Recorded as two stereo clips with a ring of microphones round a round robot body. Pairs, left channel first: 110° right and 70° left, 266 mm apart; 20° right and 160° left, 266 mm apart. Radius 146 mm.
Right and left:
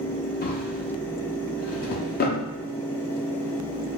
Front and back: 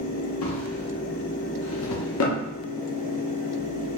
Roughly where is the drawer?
Ahead right.